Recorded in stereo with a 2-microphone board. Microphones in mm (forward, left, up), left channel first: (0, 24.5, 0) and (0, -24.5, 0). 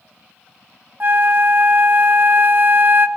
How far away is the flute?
About 0.7 m.